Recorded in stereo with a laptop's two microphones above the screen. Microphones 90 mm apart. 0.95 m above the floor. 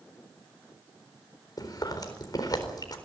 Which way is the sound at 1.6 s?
45° left (ahead or behind).